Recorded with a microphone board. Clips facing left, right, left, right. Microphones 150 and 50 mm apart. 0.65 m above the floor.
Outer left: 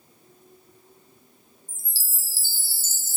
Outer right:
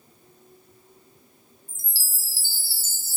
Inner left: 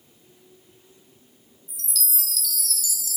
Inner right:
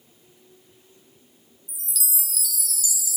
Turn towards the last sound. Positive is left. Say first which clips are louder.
# outer right 1 dB, inner left 2 dB
turn(degrees=-10)  # may be behind; listen again after turning